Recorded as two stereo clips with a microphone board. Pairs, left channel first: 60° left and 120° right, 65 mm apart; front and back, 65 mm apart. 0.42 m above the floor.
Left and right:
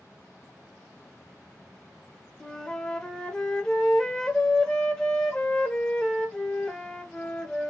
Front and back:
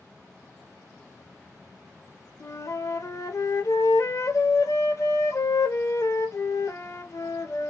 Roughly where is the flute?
Ahead.